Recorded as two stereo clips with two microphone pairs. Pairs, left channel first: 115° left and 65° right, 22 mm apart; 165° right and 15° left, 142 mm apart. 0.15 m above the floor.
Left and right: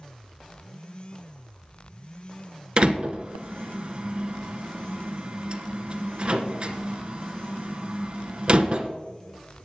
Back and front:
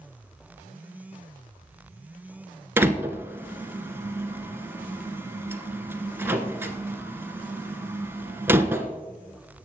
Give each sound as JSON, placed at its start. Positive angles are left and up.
{"t": 2.8, "sound": "a door slam", "azimuth_deg": -55, "distance_m": 1.5}